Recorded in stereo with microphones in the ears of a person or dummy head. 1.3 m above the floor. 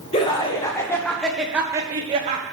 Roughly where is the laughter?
Left.